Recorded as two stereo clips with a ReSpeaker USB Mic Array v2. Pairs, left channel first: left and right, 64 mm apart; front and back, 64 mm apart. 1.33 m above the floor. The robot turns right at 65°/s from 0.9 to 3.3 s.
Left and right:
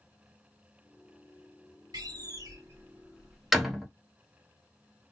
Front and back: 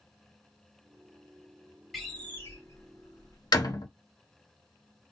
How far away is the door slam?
About 1.2 m.